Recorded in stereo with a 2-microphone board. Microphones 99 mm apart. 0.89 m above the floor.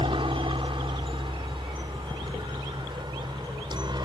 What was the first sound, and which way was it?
A helicopter, 60° right (ahead or behind).